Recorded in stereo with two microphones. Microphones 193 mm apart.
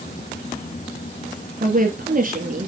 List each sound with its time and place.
1.6 s a woman speaking: 45° right (ahead or behind), 2 m